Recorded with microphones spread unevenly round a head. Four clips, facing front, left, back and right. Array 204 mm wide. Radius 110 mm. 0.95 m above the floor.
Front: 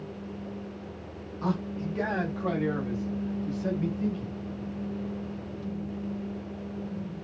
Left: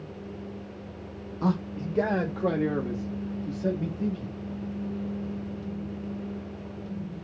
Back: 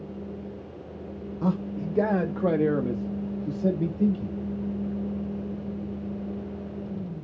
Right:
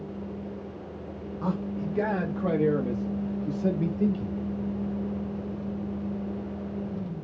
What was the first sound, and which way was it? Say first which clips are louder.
A man speaking: left 2 dB, back 3 dB; 145° left.